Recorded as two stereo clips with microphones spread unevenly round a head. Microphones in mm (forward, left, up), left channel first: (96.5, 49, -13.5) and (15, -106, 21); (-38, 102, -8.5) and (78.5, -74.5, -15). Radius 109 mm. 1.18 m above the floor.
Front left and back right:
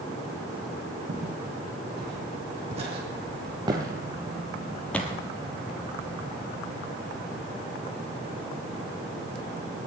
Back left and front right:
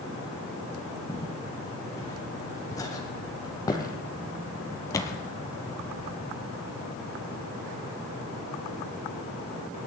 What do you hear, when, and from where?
1.1 s footsteps: 160° right, 3 m; by 5.2 s 145° left, 1.2 m